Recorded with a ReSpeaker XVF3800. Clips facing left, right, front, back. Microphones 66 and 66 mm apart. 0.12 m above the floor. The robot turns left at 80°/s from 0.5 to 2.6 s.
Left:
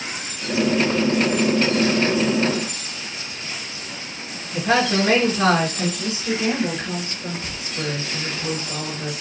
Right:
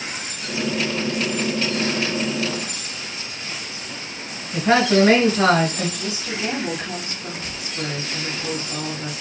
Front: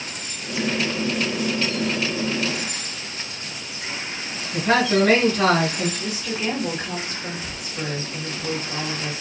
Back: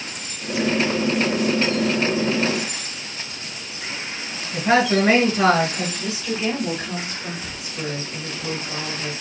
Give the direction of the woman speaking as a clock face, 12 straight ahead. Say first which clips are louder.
Left 3 dB, back 2 dB; 10 o'clock.